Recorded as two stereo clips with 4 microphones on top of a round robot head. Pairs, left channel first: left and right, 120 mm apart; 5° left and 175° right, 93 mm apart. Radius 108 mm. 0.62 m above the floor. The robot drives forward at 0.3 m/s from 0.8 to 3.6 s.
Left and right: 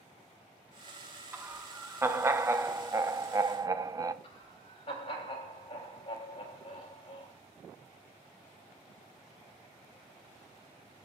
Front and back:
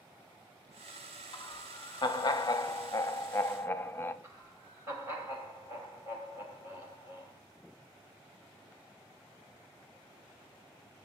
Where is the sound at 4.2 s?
125° left, 4 m.